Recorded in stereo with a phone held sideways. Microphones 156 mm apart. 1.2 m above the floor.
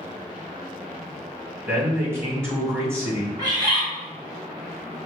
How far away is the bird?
About 1.7 m.